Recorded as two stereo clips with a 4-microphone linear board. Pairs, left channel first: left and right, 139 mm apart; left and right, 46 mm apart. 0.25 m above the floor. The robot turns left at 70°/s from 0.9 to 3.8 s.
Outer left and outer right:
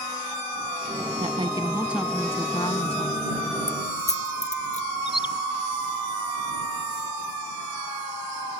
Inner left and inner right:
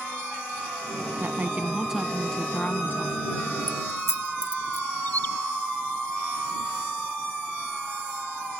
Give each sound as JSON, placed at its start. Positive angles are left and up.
{"t": 1.2, "sound": "a woman speaking", "azimuth_deg": -120}
{"t": 3.7, "sound": "keys jangling", "side_deg": 65}
{"t": 5.1, "sound": "a bird", "side_deg": 35}